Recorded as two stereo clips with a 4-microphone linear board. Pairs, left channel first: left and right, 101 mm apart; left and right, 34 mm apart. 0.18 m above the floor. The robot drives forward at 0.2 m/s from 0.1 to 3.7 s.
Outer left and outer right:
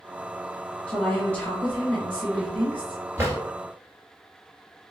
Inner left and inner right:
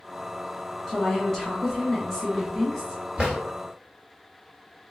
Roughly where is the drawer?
Right.